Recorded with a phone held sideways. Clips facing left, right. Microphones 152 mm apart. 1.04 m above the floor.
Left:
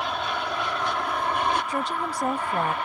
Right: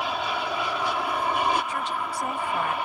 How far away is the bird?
I don't hear a bird.